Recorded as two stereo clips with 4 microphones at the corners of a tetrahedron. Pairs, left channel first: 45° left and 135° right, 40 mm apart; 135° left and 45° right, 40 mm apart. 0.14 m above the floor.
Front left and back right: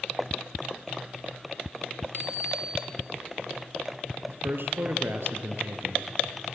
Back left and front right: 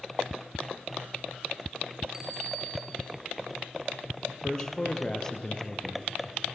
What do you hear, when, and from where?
2.1 s a bicycle bell: 120° right, 5.5 m
4.3 s a man speaking: 150° right, 3 m